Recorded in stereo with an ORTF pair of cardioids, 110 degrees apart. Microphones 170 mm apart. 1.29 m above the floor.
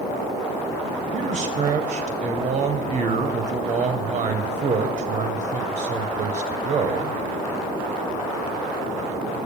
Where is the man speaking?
40° right, 0.8 m.